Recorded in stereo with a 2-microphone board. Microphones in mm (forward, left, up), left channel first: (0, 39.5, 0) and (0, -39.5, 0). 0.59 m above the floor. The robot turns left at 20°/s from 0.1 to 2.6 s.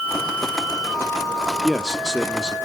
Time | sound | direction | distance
1.6 | a man speaking | centre (ahead or behind) | 1.1 m